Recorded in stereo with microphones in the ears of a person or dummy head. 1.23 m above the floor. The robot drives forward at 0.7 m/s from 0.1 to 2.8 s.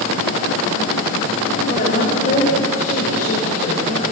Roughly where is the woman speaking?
Left.